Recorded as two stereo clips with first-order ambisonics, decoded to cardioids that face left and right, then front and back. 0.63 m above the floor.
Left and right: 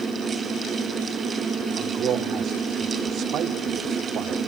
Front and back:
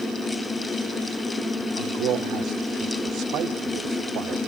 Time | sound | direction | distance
1.8 | a man speaking | 140° right | 1.3 m